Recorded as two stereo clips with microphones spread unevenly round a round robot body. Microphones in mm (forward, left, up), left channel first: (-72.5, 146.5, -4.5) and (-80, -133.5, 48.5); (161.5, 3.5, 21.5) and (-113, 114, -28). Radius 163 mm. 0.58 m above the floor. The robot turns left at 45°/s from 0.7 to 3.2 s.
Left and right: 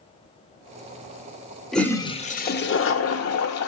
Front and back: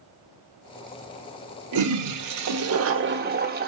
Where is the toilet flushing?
175° left, 0.8 m; by 3.7 s 105° left, 0.8 m.